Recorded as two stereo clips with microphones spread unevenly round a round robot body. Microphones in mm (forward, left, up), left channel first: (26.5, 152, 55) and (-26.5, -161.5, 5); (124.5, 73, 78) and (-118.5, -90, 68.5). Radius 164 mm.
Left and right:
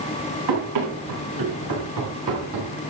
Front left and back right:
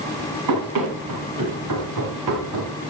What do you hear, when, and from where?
0.5 s running footsteps: 120° right, 7.5 m; by 2.7 s 130° right, 5.5 m